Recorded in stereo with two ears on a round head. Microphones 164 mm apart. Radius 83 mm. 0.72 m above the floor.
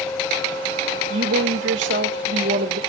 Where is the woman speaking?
65° right (ahead or behind), 2.5 m.